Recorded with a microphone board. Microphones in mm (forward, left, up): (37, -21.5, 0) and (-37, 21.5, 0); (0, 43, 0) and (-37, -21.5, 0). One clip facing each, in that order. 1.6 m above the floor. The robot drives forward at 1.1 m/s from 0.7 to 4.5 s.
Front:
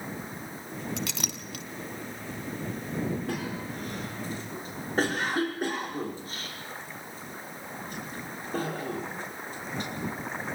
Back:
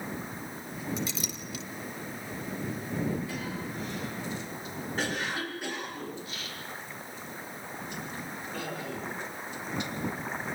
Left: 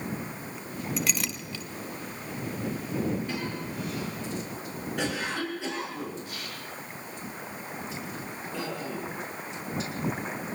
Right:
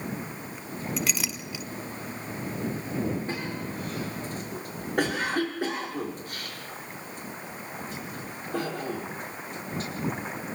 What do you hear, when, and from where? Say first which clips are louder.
1.0 s a clink: even, even; 25° right, 1.6 m; by 1.6 s 50° right, 1.1 m
3.3 s a cough: front 2 dB, right 1 dB; 65° right, 5.5 m; by 9.9 s 80° right, 5 m